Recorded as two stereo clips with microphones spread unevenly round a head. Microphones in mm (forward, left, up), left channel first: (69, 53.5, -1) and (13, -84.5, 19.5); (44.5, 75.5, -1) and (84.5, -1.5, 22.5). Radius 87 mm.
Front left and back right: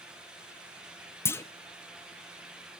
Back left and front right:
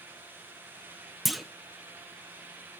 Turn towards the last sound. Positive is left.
turn(degrees=-5)